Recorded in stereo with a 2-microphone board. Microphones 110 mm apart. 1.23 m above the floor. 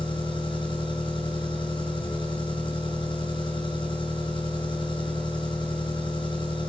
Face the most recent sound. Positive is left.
turn(degrees=50)  # may be behind; listen again after turning